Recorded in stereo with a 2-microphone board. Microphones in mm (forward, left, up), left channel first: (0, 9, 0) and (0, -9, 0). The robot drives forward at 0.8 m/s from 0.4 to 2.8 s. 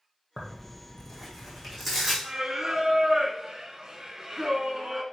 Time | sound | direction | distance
0.4 | tearing paper | centre (ahead or behind) | 2 m
2.2 | singing | 40° right (ahead or behind) | 1.1 m